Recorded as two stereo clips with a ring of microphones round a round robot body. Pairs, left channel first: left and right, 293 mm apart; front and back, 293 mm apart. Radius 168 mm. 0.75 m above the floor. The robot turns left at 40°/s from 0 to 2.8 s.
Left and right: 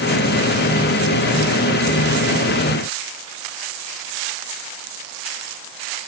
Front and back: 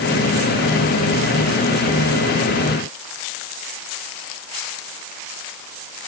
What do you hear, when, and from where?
Only background noise.